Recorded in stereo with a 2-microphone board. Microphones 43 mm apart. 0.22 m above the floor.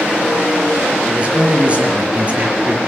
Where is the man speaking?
25° right (ahead or behind), 4 m.